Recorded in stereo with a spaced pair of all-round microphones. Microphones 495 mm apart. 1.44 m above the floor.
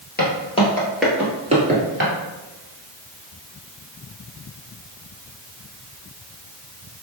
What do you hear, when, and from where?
0.2 s footsteps: 20° left (ahead or behind), 1.5 m; by 2.1 s 25° right (ahead or behind), 1.5 m